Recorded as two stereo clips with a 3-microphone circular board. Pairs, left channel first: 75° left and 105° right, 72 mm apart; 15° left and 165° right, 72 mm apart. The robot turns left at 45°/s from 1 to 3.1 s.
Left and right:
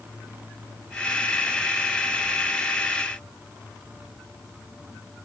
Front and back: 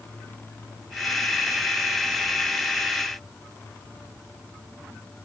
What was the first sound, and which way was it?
Only background noise.